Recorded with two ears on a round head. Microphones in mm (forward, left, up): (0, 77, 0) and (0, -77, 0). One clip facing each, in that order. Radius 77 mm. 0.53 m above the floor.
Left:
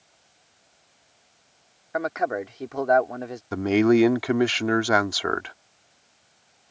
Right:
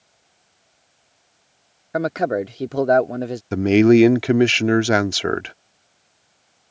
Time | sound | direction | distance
1.9 | a man speaking | 40° right (ahead or behind) | ?
3.5 | a man speaking | 30° right (ahead or behind) | ?